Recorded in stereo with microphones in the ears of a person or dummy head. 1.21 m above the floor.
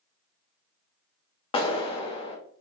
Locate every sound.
1.5 s a clap: 25° left (ahead or behind), 0.6 m